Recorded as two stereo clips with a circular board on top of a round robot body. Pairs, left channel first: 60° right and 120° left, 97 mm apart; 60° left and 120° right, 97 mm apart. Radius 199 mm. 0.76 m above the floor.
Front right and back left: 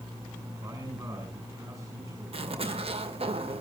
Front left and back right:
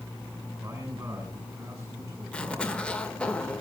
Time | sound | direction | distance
0.6 | a man speaking | 175° left | 7 m
2.3 | a zipper | 140° left | 2 m